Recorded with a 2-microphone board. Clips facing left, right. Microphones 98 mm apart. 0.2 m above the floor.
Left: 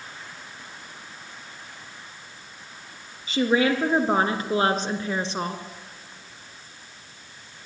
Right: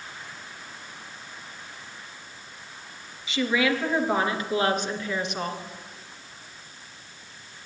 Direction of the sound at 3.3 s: 45° left (ahead or behind).